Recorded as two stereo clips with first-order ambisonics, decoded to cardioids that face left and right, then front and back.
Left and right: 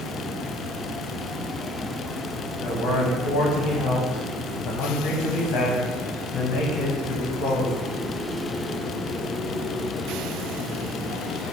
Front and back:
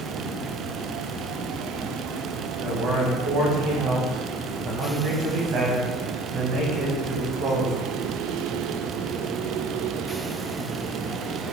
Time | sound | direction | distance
2.6 | a man speaking | 140° left | 1.0 m